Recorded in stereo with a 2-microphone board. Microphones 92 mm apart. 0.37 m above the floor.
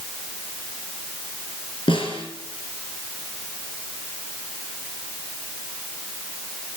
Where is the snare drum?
65° left (ahead or behind), 4 m.